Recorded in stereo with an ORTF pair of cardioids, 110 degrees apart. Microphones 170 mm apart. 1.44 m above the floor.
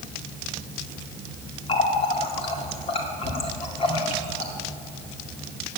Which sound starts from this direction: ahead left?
A running tap, at 1.7 s.